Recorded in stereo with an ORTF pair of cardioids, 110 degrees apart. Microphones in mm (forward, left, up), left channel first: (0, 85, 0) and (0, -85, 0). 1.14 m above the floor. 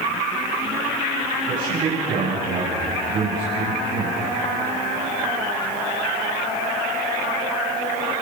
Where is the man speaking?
55° right, 9.5 m; by 4.2 s 60° right, 8 m.